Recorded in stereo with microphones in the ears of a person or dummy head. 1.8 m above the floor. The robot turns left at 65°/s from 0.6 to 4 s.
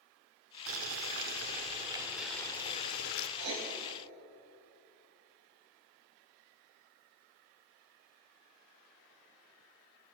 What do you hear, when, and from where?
0.7 s boiling: 80° right, 0.6 m; by 3.3 s 110° left, 0.6 m
3.4 s writing: 60° right (ahead or behind), 1.4 m